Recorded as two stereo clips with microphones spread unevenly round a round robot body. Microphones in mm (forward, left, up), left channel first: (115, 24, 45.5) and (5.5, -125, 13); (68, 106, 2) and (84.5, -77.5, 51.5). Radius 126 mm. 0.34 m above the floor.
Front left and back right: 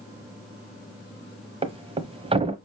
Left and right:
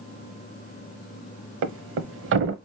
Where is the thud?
70° right, 0.8 m.